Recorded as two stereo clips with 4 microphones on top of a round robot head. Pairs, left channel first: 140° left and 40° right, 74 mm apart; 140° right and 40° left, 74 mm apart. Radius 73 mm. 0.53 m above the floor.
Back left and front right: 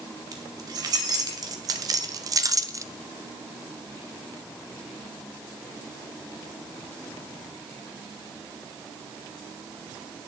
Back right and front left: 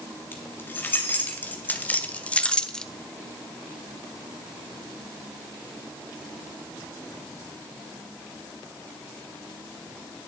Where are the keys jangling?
80° right, 2.5 m; by 2.9 s 60° right, 0.8 m.